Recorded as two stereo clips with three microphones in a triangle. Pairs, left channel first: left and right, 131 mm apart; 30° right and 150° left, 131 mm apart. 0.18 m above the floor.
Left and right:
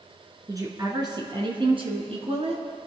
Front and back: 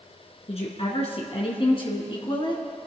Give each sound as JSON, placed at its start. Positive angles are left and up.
{"t": 0.5, "sound": "a woman speaking", "azimuth_deg": -35, "distance_m": 2.0}